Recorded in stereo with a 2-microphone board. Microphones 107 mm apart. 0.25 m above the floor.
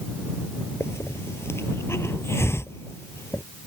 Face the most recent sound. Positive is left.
turn(degrees=20)  # may be behind; listen again after turning